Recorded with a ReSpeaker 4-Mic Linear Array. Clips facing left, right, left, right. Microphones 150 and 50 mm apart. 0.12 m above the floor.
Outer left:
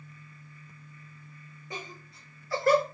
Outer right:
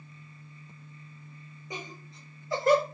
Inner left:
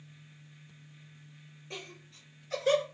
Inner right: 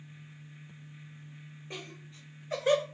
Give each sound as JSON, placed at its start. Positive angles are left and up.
{"t": 1.7, "sound": "laughter", "side_deg": -20, "distance_m": 1.8}